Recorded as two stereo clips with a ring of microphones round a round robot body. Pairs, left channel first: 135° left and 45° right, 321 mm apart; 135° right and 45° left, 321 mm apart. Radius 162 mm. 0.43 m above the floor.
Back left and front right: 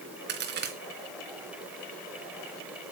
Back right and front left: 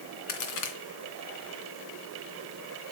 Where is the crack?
105° right, 3 m.